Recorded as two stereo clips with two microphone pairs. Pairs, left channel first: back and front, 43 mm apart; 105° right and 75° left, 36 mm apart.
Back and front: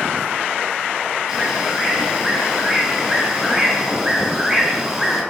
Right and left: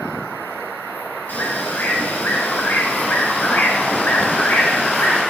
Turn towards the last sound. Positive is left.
turn(degrees=-80)